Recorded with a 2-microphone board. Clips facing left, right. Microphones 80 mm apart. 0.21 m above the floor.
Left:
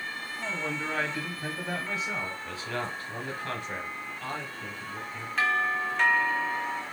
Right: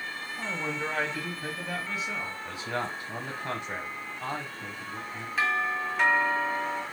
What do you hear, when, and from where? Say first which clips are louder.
0.4 s a man speaking: right 1 dB; 30° right (ahead or behind), 1.6 m; by 2.4 s 40° left (ahead or behind), 1.8 m
2.5 s a man speaking: right 1 dB; 20° right (ahead or behind), 1.0 m
5.4 s a doorbell: left 1 dB; 5° right (ahead or behind), 1.7 m